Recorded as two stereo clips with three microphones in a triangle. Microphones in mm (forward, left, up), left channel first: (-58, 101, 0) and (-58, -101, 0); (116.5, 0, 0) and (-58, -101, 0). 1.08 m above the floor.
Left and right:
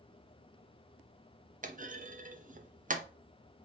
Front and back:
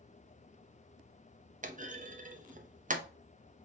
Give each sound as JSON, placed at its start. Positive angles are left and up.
{"t": 1.6, "sound": "a clunk", "azimuth_deg": -120, "distance_m": 0.5}